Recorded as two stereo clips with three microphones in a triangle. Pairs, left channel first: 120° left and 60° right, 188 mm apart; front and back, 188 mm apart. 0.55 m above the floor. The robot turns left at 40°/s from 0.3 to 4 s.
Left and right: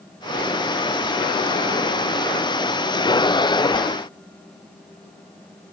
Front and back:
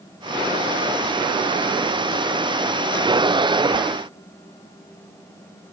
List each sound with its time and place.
Only background noise.